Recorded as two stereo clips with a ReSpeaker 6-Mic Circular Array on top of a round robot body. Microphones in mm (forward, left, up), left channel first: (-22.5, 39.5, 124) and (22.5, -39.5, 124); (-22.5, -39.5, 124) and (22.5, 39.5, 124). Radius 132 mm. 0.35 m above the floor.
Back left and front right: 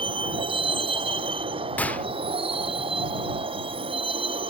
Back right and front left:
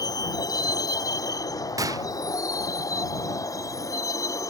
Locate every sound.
0.0 s a vehicle: 75° right; by 4.5 s 65° right
1.8 s a gunshot: 55° left